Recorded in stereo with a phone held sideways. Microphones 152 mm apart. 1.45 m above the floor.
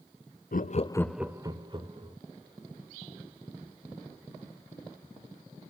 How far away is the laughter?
About 0.6 m.